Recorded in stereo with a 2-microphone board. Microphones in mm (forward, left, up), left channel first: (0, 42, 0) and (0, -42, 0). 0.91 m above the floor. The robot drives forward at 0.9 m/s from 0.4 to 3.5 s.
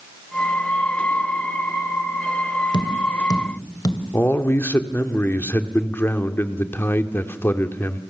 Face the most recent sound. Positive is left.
turn(degrees=25)  # may be behind; listen again after turning